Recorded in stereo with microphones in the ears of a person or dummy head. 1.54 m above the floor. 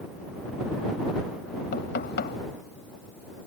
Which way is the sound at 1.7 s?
55° left (ahead or behind).